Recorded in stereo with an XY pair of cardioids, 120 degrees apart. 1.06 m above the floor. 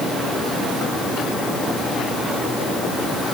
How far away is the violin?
I don't hear a violin.